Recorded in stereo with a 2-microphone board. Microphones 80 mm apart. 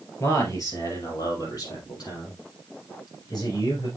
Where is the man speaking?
40° left (ahead or behind), 2.5 m; by 3.9 s 65° left (ahead or behind), 5 m.